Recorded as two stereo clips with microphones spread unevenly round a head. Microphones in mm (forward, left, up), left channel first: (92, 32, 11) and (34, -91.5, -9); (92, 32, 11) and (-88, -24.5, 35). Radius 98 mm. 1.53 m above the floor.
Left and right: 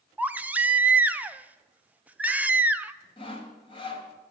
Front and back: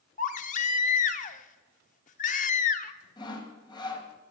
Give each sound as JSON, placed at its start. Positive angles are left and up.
{"t": 0.2, "sound": "a baby crying", "azimuth_deg": -30, "distance_m": 0.7}
{"t": 3.2, "sound": "sawing", "azimuth_deg": 90, "distance_m": 1.7}